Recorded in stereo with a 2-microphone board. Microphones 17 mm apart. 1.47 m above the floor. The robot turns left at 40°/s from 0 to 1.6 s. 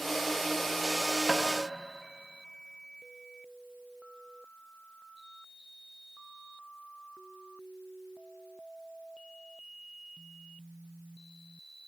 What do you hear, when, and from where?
1.3 s tapping: 65° right (ahead or behind), 1.3 m